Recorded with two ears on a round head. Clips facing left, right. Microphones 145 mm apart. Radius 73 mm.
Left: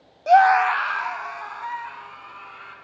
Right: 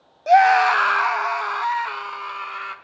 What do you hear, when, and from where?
0.3 s a scream: centre (ahead or behind), 0.6 m; by 2.8 s 75° right (ahead or behind), 3.5 m